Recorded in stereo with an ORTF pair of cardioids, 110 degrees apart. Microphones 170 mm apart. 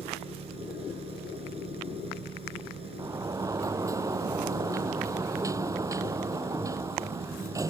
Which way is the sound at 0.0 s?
35° right.